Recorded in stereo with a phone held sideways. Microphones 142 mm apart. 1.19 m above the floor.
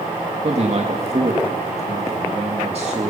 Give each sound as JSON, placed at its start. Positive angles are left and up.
{"t": 0.4, "sound": "a man speaking", "side_deg": -50, "distance_m": 2.0}